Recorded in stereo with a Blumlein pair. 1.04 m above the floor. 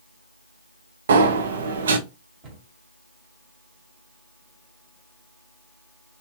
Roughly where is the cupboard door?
Ahead right.